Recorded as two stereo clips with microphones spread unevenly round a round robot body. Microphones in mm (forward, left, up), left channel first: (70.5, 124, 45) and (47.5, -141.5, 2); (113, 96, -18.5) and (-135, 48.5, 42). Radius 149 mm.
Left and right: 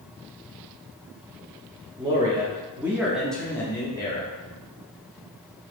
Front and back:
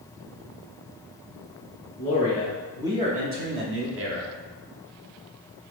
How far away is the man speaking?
About 0.9 m.